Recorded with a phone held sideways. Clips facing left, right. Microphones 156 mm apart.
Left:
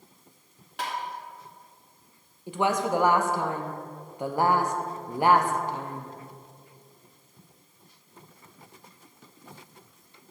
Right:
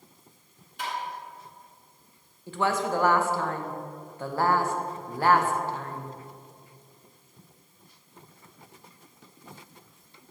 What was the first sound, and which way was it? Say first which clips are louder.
Tapping: left 1 dB; 75° left (ahead or behind).